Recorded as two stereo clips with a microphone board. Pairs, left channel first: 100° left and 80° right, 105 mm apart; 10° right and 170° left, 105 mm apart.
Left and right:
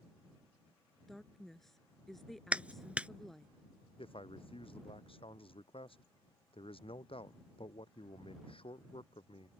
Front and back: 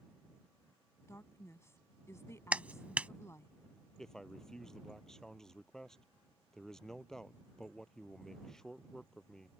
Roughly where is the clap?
Behind right.